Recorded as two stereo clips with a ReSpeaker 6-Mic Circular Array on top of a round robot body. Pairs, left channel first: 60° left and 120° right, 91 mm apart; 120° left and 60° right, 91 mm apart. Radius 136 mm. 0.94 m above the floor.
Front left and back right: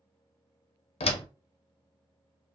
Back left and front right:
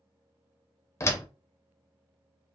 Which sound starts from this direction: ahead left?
A door slam, at 1.0 s.